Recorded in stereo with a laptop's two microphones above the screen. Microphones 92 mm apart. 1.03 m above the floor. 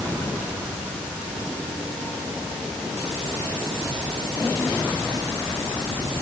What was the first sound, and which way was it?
Only background noise.